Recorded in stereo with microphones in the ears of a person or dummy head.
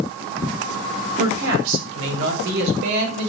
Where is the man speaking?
80° right, 3.5 m; by 3.3 s 70° right (ahead or behind), 5.5 m.